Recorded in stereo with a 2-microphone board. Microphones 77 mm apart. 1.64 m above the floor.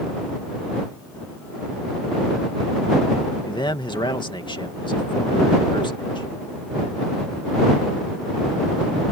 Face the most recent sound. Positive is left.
turn(degrees=90)